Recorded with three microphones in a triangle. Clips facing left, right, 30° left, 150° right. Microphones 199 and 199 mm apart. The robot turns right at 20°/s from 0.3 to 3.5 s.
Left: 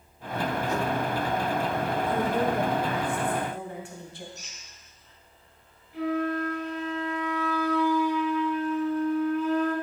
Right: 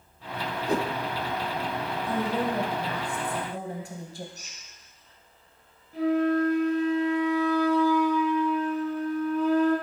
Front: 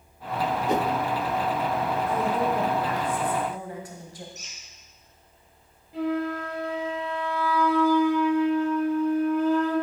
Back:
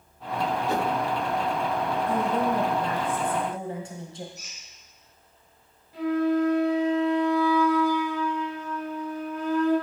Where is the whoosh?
40° right, 0.6 m; by 0.9 s 35° right, 0.6 m.